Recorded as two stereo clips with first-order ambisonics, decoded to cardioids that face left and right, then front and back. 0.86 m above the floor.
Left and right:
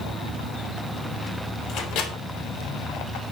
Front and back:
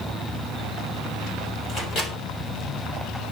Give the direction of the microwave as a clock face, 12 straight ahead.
10 o'clock.